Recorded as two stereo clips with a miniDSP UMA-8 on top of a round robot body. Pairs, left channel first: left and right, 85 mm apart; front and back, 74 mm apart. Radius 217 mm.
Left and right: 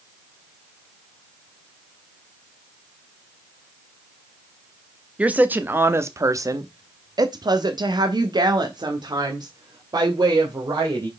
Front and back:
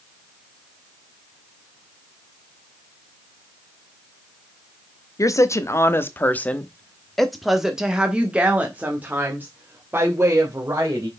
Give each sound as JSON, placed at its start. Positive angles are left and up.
{"t": 5.2, "sound": "a woman speaking", "azimuth_deg": -20, "distance_m": 1.3}